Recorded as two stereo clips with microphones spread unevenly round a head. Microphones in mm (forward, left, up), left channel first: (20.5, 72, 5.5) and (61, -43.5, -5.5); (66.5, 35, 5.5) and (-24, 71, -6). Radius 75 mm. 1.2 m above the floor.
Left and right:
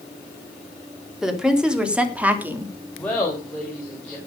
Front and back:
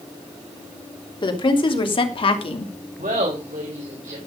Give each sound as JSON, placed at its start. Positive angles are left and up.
{"t": 1.2, "sound": "a woman speaking", "azimuth_deg": 15, "distance_m": 3.5}
{"t": 3.0, "sound": "laughter", "azimuth_deg": -170, "distance_m": 4.0}